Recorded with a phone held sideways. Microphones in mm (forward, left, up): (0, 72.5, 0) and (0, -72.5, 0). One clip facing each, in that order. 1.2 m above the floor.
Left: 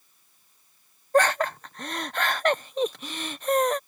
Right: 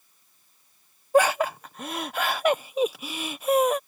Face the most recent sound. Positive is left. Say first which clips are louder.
# right 2 dB
turn(degrees=-10)  # may be behind; listen again after turning